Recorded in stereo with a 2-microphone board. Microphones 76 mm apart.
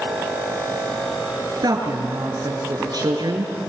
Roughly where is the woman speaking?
Right.